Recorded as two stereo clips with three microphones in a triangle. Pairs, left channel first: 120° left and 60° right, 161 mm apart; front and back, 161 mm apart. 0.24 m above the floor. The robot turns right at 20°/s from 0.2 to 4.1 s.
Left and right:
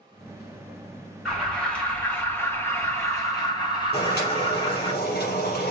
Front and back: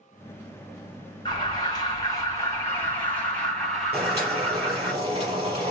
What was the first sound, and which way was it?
An alarm, 35° left.